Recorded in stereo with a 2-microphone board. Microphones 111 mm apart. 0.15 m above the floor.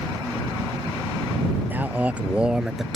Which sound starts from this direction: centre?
A man speaking, at 1.7 s.